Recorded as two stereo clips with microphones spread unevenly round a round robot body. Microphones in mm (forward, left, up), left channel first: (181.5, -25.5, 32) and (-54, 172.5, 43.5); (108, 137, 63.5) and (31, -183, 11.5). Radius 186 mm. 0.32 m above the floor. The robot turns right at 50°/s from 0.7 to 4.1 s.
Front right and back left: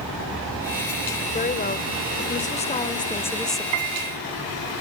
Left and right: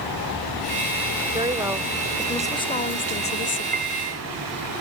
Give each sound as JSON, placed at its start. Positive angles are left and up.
{"t": 1.3, "sound": "a woman speaking", "azimuth_deg": -65, "distance_m": 1.2}
{"t": 3.7, "sound": "a piano", "azimuth_deg": -175, "distance_m": 0.8}